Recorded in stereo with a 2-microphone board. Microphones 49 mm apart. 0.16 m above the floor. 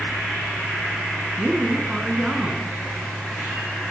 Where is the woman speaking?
15° right (ahead or behind), 1.8 m.